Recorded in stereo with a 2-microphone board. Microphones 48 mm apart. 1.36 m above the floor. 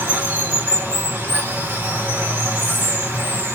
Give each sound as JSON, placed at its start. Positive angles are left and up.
{"t": 0.0, "sound": "running water", "side_deg": -55, "distance_m": 1.5}